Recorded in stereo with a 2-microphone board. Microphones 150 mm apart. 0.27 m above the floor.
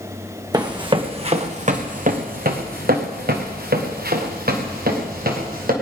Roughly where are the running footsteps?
Right.